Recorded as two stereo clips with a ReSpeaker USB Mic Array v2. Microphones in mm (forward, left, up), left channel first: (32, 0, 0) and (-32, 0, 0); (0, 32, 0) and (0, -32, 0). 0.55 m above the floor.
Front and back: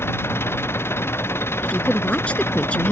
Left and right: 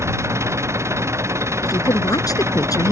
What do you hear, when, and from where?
0.0 s an engine running: 50° right
1.6 s a woman speaking: 70° left